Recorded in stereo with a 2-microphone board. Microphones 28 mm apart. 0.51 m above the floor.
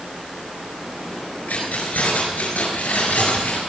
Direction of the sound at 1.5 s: 85° left.